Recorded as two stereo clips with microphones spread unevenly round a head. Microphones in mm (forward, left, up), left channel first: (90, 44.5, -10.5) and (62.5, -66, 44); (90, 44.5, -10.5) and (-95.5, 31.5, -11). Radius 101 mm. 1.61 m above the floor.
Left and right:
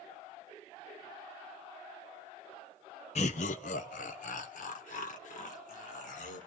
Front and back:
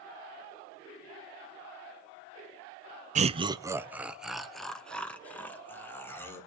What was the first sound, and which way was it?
Laughter, 130° left.